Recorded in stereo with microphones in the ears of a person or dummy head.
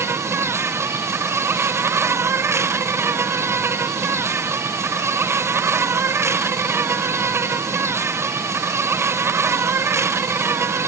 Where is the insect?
15° right (ahead or behind).